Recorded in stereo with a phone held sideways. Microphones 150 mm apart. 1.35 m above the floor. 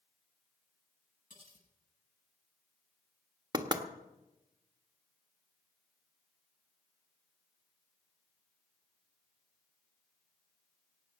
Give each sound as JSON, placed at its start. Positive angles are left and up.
{"t": 1.3, "sound": "cutlery clinking", "side_deg": 70, "distance_m": 10.0}
{"t": 3.5, "sound": "knocking", "side_deg": -30, "distance_m": 1.2}